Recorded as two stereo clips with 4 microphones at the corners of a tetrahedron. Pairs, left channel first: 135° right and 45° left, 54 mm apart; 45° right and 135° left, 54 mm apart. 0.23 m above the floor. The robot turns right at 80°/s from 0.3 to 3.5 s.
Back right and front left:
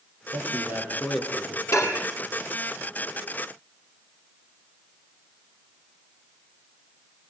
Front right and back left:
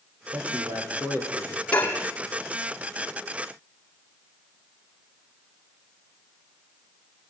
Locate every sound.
0.3 s a man speaking: 70° left, 8 m; by 1.6 s 175° left, 8 m
1.7 s dishes clattering: 115° right, 5.5 m; by 2.0 s 90° right, 5.5 m